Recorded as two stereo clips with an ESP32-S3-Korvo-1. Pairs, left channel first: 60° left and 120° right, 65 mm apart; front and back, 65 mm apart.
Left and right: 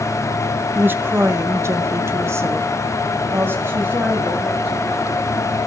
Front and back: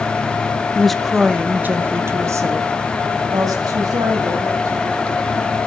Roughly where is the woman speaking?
Right.